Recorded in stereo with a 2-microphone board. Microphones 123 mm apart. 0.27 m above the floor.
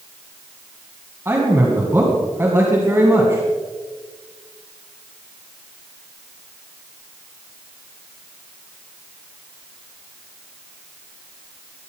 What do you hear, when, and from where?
1.2 s a man speaking: 20° right (ahead or behind), 2.5 m